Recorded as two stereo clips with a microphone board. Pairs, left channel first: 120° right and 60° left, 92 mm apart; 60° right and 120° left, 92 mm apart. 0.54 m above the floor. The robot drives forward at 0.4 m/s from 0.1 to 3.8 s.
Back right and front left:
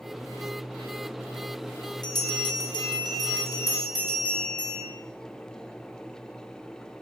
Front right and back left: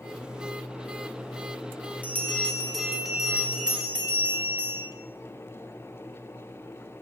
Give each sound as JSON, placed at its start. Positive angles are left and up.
{"t": 2.0, "sound": "a bell", "azimuth_deg": -120, "distance_m": 0.5}